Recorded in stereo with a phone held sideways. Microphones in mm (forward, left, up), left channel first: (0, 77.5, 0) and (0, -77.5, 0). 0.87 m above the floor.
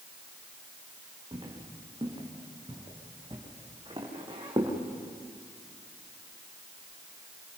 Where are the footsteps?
30° right (ahead or behind), 5 m.